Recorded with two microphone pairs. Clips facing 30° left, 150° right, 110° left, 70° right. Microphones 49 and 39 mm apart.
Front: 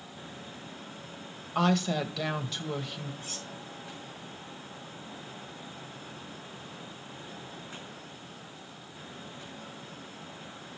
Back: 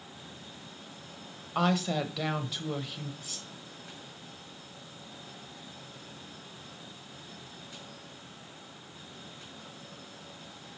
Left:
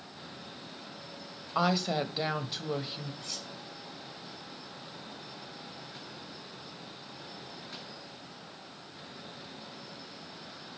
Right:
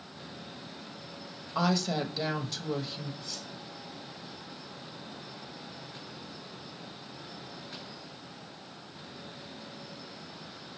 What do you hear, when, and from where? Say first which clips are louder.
1.6 s a woman speaking: front 1 dB, even; 140° left, 1.0 m
3.2 s cutlery clinking: front 4 dB, even; 85° left, 3 m